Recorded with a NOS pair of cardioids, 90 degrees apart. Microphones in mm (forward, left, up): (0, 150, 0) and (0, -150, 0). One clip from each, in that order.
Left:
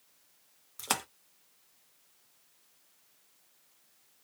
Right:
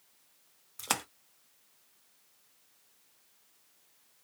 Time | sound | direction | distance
0.8 | a splash | straight ahead | 0.6 m